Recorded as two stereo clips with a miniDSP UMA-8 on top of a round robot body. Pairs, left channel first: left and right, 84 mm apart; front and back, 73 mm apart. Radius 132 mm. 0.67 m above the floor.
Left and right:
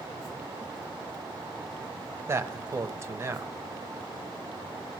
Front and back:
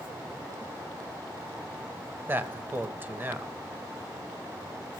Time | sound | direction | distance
2.3 | a man speaking | 130° right | 0.9 m